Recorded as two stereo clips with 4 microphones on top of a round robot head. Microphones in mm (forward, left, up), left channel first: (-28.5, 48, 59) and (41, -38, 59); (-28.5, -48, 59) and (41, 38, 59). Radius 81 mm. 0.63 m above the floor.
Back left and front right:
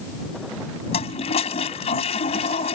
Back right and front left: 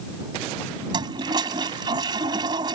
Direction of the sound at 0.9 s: 100° left.